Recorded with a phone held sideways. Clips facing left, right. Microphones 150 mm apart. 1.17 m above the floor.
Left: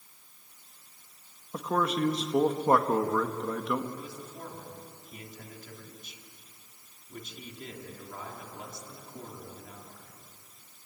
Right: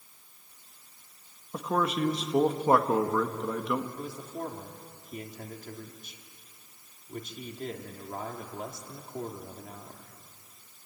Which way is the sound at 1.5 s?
5° right (ahead or behind).